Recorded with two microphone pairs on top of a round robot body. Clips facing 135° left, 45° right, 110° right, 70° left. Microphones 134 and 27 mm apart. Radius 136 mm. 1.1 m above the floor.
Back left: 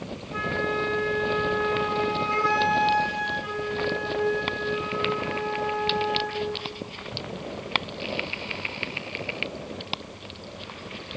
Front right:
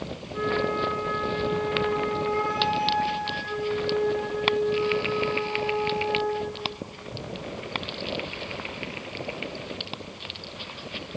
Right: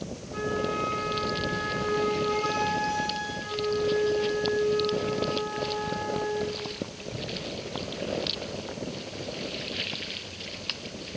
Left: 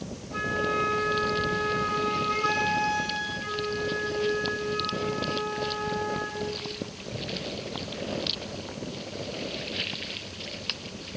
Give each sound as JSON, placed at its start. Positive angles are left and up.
{"t": 0.3, "sound": "a flute", "azimuth_deg": 135, "distance_m": 4.5}